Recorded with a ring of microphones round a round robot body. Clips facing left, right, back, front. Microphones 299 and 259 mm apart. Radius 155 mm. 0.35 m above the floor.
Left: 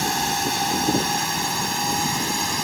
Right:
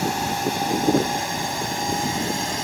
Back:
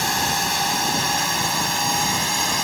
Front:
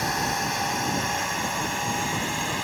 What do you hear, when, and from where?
0.0 s a drone: 150° left; by 2.6 s 160° left